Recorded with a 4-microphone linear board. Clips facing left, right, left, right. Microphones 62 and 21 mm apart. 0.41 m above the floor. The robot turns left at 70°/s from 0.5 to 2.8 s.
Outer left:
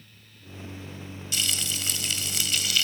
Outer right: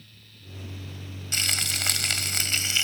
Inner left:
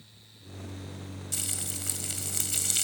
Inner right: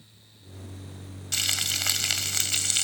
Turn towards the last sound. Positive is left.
turn(degrees=-150)